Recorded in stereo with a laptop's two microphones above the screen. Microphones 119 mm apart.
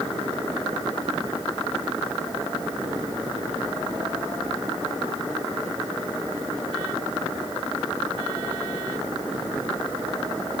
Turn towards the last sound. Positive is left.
No sound to turn to.